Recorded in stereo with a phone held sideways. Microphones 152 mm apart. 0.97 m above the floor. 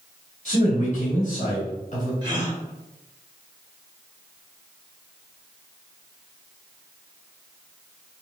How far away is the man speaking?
About 1.9 m.